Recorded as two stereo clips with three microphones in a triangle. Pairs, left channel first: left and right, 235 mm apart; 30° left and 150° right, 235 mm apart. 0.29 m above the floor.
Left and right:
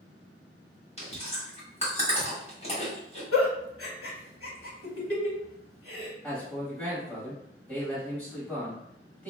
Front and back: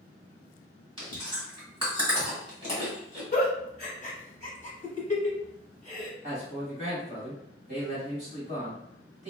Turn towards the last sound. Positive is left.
turn(degrees=170)